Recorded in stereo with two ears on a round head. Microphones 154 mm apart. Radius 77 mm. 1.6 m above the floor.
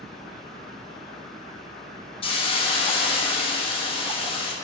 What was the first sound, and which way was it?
A hiss, 30° left (ahead or behind).